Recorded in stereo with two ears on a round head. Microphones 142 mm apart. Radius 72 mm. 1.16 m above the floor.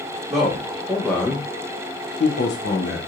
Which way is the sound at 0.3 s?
15° right (ahead or behind).